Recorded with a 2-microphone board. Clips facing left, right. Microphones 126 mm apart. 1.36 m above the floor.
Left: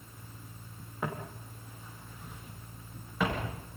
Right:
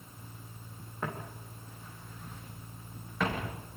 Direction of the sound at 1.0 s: 10° left (ahead or behind).